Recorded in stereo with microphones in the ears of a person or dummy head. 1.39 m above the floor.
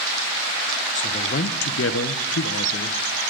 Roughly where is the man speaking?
Left.